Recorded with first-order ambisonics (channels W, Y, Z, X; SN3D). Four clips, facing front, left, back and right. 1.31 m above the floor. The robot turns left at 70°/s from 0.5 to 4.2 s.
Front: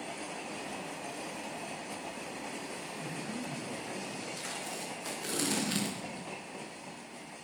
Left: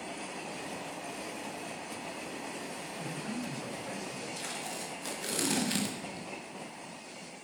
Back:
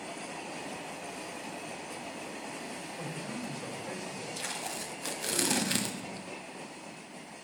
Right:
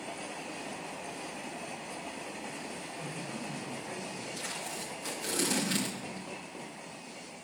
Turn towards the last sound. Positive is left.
turn(degrees=170)